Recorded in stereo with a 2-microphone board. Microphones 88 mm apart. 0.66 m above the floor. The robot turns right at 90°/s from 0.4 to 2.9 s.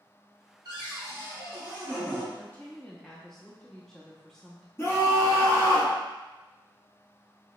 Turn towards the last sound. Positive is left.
turn(degrees=30)  # may be behind; listen again after turning